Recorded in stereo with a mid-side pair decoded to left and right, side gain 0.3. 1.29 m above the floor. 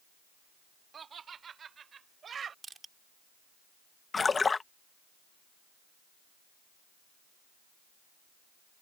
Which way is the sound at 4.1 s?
45° left.